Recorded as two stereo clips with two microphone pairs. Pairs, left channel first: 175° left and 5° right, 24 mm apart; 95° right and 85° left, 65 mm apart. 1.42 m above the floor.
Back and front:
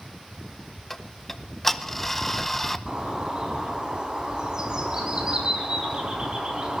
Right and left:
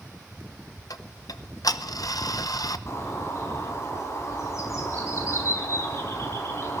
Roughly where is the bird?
Ahead right.